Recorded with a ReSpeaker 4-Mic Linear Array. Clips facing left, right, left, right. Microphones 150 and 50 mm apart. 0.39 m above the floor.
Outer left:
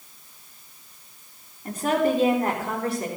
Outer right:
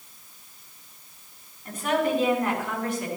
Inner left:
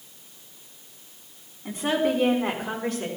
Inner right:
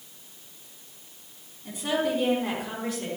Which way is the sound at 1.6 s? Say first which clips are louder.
Outer left 3 dB, inner left 3 dB; 40° left (ahead or behind).